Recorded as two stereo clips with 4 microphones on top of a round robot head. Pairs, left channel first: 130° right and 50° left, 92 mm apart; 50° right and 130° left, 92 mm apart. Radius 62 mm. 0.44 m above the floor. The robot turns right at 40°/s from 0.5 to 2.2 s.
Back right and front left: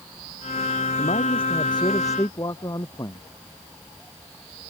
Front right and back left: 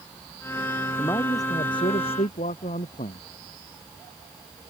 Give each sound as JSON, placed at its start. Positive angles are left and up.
{"t": 1.0, "sound": "a man speaking", "azimuth_deg": -120}